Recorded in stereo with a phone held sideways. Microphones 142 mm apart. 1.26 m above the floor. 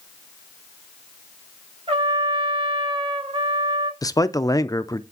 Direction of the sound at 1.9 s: 45° right (ahead or behind).